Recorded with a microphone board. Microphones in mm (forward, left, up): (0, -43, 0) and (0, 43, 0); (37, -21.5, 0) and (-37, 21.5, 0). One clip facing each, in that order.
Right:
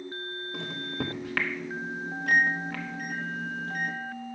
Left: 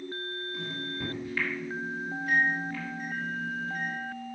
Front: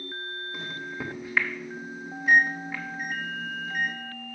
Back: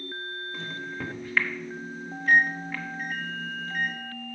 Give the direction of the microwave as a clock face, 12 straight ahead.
4 o'clock.